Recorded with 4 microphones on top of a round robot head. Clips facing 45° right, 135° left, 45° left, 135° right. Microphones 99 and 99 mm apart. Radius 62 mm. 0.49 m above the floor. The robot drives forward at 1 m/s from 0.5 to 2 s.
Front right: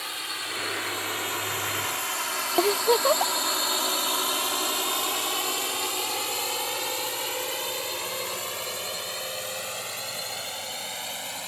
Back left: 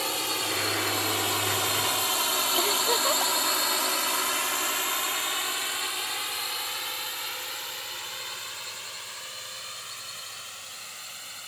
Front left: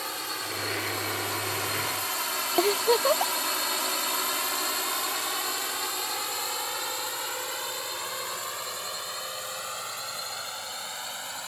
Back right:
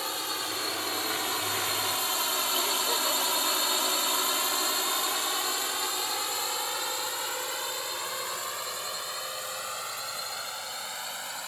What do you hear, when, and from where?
0.0 s a drone: 145° left; by 11.5 s 45° right
2.6 s a giggle: 10° left